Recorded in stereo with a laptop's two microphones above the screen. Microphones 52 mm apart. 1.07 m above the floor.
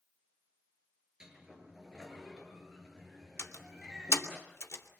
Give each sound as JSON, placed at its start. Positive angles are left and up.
{"t": 1.2, "sound": "a sliding door", "side_deg": -15, "distance_m": 6.5}
{"t": 3.4, "sound": "a door slam", "side_deg": 65, "distance_m": 2.5}